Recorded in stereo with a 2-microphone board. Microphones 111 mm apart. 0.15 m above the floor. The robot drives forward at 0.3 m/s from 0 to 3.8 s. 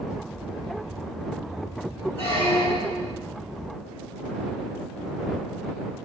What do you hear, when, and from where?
2.2 s a squeak: 60° left (ahead or behind), 3 m; by 3.1 s 65° left (ahead or behind), 2.5 m